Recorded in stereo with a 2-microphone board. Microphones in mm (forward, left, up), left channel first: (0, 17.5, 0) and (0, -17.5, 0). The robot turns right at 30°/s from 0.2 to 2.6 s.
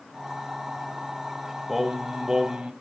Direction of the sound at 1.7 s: 10° right (ahead or behind).